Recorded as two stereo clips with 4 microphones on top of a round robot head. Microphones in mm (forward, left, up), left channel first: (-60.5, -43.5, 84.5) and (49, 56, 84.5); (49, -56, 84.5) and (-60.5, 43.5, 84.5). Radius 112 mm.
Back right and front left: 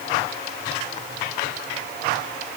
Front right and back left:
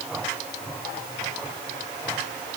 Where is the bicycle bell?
I don't hear a bicycle bell.